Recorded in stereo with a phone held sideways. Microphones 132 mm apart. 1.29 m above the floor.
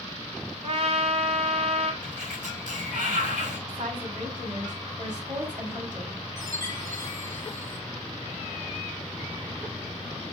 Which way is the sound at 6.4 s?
80° right.